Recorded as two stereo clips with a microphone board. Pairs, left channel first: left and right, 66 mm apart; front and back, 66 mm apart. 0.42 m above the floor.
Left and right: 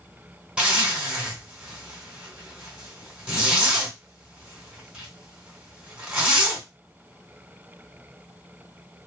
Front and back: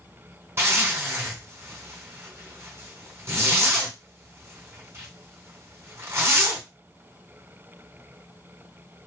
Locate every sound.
0.6 s a zipper: 160° right, 1.4 m